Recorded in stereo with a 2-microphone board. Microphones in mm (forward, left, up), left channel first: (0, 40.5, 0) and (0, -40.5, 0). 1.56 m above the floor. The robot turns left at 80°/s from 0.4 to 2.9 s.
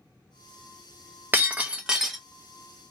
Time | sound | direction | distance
1.3 | breaking glass | 25° right (ahead or behind) | 0.9 m